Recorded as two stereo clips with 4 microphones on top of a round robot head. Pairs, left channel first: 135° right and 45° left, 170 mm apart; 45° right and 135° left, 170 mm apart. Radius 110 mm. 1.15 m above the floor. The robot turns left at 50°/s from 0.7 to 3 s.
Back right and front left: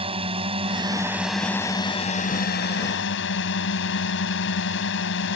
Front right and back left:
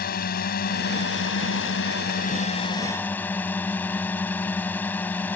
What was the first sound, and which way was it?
A drone, 10° right.